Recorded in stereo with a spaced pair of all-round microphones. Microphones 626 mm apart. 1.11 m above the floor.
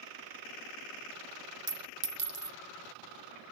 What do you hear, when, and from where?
1.7 s a clink: 35° right (ahead or behind), 0.5 m